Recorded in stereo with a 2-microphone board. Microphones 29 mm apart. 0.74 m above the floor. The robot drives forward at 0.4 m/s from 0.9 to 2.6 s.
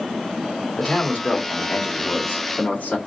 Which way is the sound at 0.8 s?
60° left (ahead or behind).